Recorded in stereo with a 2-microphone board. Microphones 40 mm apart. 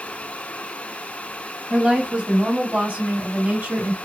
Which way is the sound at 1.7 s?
30° right (ahead or behind).